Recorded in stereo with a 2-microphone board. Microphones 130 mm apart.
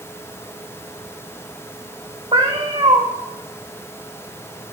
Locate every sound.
2.3 s a cat meowing: 45° right (ahead or behind), 2.0 m